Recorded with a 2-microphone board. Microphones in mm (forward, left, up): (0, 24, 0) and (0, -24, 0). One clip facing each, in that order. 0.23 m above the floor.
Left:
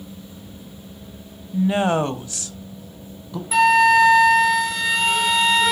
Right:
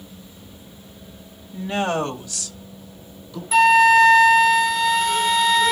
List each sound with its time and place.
1.5 s a woman speaking: 10° left (ahead or behind), 1.0 m; by 3.4 s 35° left (ahead or behind), 1.5 m
3.5 s a flute: centre (ahead or behind), 1.2 m